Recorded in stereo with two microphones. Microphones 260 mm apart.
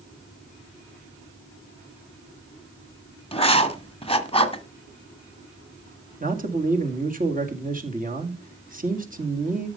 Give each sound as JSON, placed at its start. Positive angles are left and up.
{"t": 3.3, "sound": "writing", "side_deg": 20, "distance_m": 1.5}
{"t": 6.2, "sound": "a man speaking", "side_deg": -35, "distance_m": 2.0}